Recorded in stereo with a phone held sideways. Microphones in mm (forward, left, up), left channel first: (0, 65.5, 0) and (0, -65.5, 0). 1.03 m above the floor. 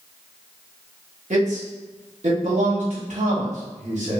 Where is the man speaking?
75° right (ahead or behind), 1.2 m.